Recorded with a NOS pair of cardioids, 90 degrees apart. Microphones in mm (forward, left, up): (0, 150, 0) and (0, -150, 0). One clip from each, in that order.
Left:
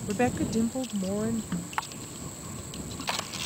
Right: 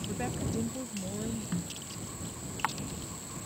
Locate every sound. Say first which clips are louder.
0.1 s a woman speaking: left 11 dB; 55° left; by 1.4 s 45° left
1.5 s a snare drum: left 7 dB; 15° left